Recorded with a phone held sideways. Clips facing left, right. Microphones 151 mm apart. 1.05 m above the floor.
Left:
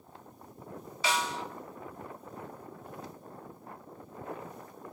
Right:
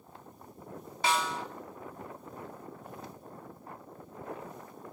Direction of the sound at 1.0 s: 60° right (ahead or behind).